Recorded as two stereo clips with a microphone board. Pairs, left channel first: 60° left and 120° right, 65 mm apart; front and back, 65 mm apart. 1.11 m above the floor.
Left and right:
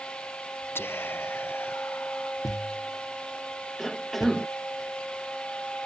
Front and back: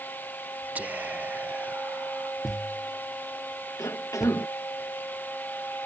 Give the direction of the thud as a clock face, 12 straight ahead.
9 o'clock.